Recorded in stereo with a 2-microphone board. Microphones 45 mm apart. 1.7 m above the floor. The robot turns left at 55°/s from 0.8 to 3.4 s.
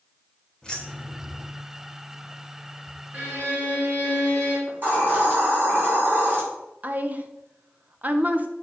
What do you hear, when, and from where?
0.6 s keys jangling: 15° left (ahead or behind), 2 m; by 1.5 s 20° right (ahead or behind), 2 m
3.1 s a violin: 35° right (ahead or behind), 3.5 m; by 4.6 s 45° right (ahead or behind), 3.5 m
4.7 s a hiss: 45° right (ahead or behind), 4 m
6.8 s a woman speaking: 35° right (ahead or behind), 1.0 m